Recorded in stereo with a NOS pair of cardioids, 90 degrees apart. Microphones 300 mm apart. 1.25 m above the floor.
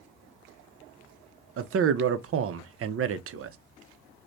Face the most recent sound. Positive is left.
turn(degrees=-50)